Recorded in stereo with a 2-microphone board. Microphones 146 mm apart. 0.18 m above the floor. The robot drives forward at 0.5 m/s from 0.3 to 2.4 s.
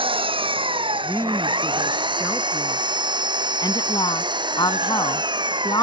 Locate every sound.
0.0 s an engine running: 35° right (ahead or behind); by 5.8 s 30° right (ahead or behind)
1.0 s a woman speaking: 15° left (ahead or behind); by 3.1 s 20° left (ahead or behind)
3.6 s a woman speaking: 30° left (ahead or behind)